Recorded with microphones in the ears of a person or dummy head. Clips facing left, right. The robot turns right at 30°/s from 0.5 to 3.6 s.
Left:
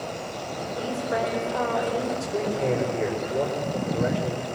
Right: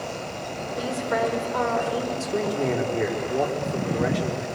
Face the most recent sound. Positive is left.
turn(degrees=-65)